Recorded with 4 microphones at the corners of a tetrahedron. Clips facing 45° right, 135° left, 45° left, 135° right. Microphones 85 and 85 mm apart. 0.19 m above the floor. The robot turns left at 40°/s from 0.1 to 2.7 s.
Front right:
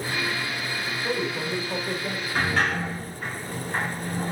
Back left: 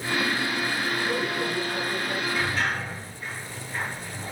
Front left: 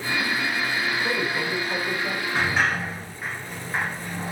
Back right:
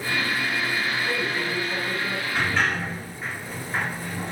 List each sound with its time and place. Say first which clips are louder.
1.0 s a man speaking: back left 1 dB, front left 1 dB; 20° left, 8.5 m; by 2.2 s 30° right, 8.5 m
2.4 s a sliding door: front right 7 dB, front left 1 dB; 20° right, 9.5 m; by 4.3 s 35° right, 9.5 m